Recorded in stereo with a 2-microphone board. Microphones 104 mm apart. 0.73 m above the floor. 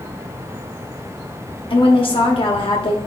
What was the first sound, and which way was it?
A woman speaking, 60° left (ahead or behind).